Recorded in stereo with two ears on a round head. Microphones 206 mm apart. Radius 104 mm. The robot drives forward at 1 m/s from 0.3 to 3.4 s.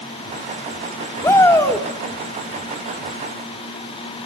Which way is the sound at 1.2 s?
15° left (ahead or behind).